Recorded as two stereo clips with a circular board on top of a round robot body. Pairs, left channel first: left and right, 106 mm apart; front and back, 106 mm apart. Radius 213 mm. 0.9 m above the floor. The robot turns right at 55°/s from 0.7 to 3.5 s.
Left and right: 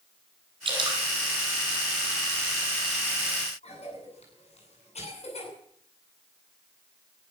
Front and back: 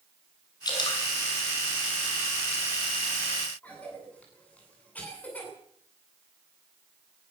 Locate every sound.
0.7 s dripping: 50° right, 5.5 m; by 1.0 s 35° right, 5.5 m
3.6 s a cough: 75° left, 9.5 m